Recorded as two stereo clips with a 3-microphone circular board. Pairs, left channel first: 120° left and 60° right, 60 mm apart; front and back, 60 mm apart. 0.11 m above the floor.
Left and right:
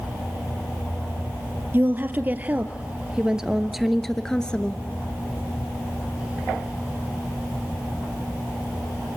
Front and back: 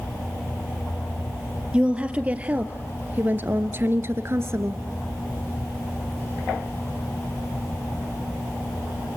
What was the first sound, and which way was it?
A woman speaking, 110° right.